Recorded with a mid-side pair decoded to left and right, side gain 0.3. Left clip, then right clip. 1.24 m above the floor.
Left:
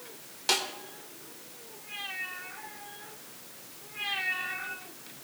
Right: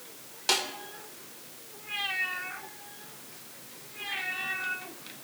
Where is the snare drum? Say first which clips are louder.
Right 1 dB; straight ahead, 2.5 m.